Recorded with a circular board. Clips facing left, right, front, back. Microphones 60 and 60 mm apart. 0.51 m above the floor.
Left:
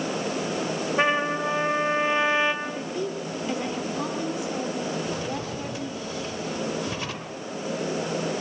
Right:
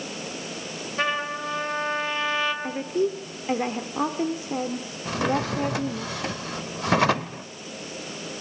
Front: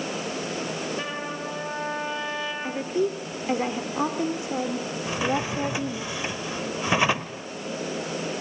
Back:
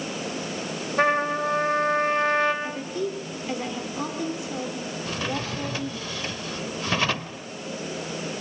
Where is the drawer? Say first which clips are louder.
Right 5 dB, front 5 dB; 75° right, 0.7 m.